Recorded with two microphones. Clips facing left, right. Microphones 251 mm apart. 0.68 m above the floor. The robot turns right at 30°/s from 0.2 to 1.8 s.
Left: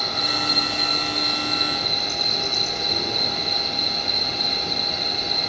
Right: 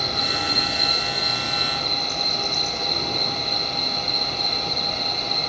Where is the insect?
35° right, 1.4 m; by 5.5 s 10° left, 1.4 m.